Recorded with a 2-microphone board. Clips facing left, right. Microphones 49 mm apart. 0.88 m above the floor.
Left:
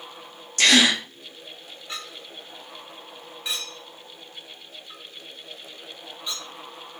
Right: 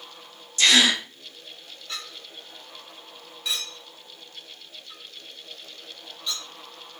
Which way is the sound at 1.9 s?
20° left (ahead or behind).